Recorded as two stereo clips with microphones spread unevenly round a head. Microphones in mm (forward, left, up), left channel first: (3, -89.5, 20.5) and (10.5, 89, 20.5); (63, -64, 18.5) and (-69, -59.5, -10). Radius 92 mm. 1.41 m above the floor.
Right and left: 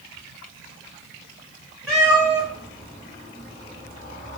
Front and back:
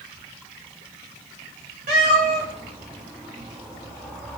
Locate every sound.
1.9 s a cat meowing: straight behind, 1.5 m; by 4.4 s 100° right, 1.5 m